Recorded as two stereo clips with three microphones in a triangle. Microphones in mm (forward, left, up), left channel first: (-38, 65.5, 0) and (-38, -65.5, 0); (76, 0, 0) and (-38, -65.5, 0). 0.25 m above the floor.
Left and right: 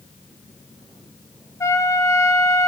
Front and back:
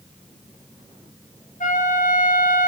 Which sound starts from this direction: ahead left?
A trumpet, at 1.6 s.